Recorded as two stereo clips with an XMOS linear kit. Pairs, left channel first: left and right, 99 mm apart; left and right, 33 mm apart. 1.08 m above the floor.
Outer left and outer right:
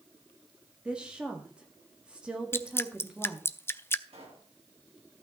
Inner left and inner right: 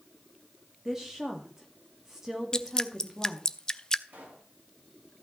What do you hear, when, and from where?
0.8 s a woman speaking: 10° right (ahead or behind), 1.8 m
2.5 s dripping: 25° left (ahead or behind), 0.5 m
4.1 s a pop: 80° right, 4 m